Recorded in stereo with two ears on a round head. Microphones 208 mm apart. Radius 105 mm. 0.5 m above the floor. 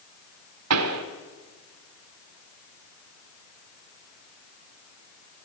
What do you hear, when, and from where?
0.7 s a pop: 80° right, 1.3 m